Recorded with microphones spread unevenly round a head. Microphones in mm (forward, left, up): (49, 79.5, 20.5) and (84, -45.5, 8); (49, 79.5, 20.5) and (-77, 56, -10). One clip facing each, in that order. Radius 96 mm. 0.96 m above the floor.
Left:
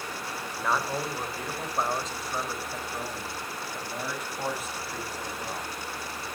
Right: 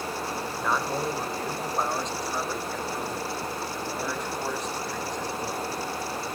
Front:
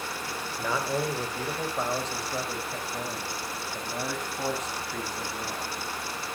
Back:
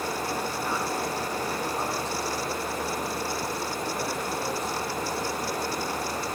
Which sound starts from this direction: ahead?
A man speaking, at 0.6 s.